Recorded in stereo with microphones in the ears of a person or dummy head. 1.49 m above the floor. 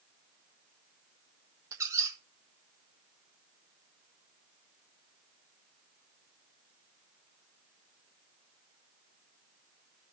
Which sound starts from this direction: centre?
A squeak, at 1.7 s.